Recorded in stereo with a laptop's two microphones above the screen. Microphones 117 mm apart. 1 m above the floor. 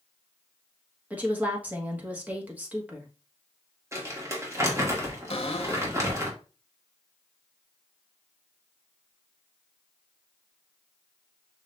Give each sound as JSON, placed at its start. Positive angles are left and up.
{"t": 1.1, "sound": "a woman speaking", "side_deg": -15, "distance_m": 1.5}
{"t": 3.9, "sound": "crumpling", "side_deg": -25, "distance_m": 1.9}
{"t": 5.3, "sound": "a cupboard door", "side_deg": 55, "distance_m": 1.2}